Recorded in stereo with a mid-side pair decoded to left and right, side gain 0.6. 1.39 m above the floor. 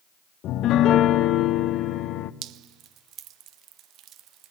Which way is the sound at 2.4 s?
60° right.